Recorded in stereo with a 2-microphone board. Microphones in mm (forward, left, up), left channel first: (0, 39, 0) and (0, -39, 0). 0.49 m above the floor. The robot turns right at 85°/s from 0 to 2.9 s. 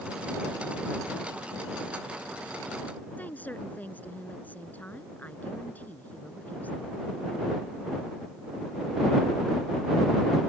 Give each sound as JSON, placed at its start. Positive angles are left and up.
{"t": 3.2, "sound": "a woman speaking", "side_deg": 20}